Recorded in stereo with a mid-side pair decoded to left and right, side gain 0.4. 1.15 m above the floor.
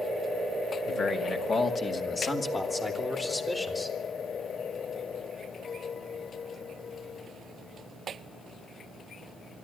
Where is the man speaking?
65° left, 2 m; by 4.0 s 25° left, 3.5 m.